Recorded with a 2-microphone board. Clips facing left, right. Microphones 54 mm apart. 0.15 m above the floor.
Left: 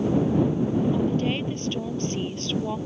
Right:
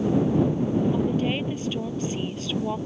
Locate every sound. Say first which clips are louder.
0.9 s a woman speaking: even; 10° right (ahead or behind)